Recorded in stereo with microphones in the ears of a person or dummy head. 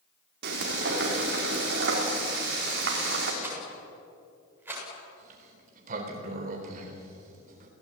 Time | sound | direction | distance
0.4 | frying | 65° right (ahead or behind) | 4 m
3.4 | a rattle | 10° right (ahead or behind) | 7.5 m
5.2 | a sliding door | 50° right (ahead or behind) | 3.5 m